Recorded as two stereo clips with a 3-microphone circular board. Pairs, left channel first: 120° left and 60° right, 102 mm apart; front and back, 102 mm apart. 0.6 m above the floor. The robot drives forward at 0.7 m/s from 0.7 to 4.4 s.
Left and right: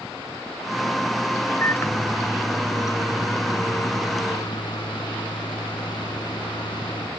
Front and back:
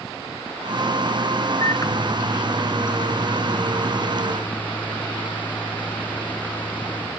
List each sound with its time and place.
1.6 s a microwave: 55° left; by 7.1 s 75° left